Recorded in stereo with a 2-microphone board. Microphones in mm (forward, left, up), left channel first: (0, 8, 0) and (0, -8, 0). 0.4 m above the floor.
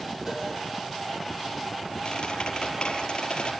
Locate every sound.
0.3 s a cowbell: 20° right (ahead or behind), 6.5 m
2.0 s a squeak: 70° left (ahead or behind), 5.5 m